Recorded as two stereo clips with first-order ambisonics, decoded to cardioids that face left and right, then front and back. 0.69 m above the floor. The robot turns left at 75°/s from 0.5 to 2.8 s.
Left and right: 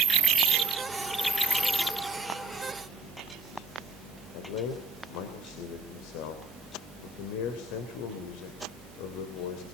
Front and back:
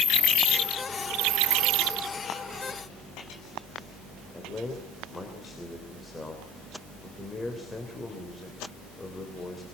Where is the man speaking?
80° left, 3 m.